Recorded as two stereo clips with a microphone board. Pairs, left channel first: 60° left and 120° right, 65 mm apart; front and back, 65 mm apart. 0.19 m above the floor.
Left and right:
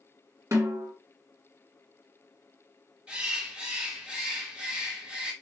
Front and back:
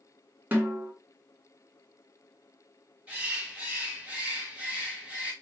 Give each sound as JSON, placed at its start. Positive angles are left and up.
{"t": 0.5, "sound": "a snare drum", "azimuth_deg": -125, "distance_m": 1.2}
{"t": 3.1, "sound": "a bird", "azimuth_deg": -160, "distance_m": 1.1}